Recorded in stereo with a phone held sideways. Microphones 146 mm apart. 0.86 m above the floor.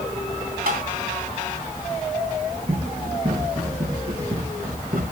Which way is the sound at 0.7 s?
80° right.